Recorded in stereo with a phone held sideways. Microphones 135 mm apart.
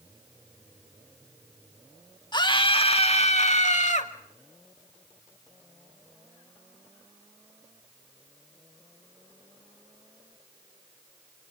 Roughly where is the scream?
Left.